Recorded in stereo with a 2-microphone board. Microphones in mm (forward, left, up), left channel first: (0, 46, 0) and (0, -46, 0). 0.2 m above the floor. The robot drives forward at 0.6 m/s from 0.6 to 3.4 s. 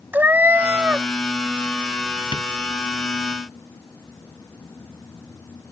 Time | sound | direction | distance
0.1 | a cat meowing | 20° right (ahead or behind) | ?
2.3 | tapping | 60° left (ahead or behind) | ?